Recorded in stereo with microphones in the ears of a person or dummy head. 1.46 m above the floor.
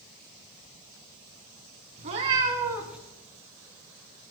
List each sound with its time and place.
2.0 s a cat meowing: 40° right (ahead or behind), 1.8 m; by 3.0 s 10° right (ahead or behind), 2.0 m